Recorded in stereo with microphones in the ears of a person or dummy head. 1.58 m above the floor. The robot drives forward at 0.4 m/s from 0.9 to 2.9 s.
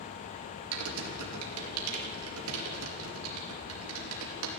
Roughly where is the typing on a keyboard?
Right.